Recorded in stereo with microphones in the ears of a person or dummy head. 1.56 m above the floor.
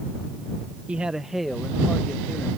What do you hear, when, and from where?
0.9 s a man speaking: 10° right (ahead or behind); by 2.6 s centre (ahead or behind)